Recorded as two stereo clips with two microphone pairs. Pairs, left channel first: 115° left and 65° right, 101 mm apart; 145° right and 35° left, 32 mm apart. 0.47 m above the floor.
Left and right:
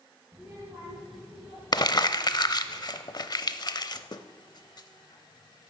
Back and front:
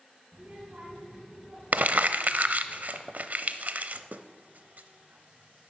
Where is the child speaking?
5° left, 6.5 m; by 2.7 s 35° left, 7 m.